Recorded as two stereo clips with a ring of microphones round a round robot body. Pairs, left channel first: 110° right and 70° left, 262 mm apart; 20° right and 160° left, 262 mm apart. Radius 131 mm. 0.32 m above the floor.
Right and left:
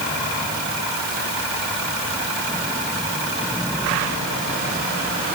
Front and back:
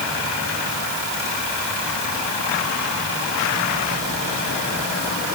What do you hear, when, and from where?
Only background noise.